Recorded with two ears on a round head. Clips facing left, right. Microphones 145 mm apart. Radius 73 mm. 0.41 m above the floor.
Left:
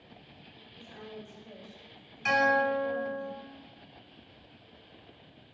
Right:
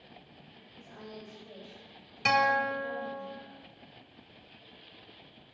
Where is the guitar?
70° right (ahead or behind), 0.5 m.